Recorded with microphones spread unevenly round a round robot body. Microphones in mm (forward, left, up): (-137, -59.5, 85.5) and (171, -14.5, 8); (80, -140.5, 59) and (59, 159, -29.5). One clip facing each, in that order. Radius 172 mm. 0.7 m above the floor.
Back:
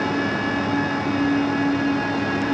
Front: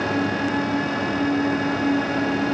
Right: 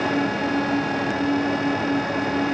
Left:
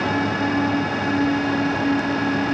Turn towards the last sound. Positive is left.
No sound to turn to.